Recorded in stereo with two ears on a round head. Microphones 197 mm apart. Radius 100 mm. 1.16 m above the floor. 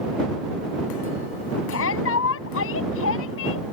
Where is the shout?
70° left (ahead or behind).